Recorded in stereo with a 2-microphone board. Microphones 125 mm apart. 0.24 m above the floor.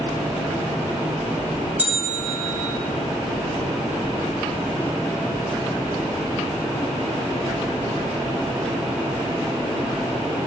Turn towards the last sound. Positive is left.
turn(degrees=-15)  # may be behind; listen again after turning